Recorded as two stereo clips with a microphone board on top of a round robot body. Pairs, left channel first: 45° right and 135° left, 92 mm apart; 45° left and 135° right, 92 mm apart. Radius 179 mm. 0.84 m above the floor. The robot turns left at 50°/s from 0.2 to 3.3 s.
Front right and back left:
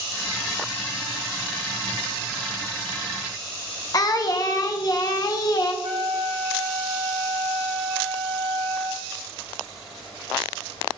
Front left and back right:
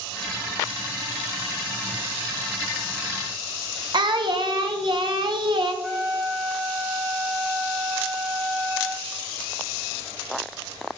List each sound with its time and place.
3.9 s singing: 95° right, 0.7 m
5.8 s a trumpet: 145° left, 0.7 m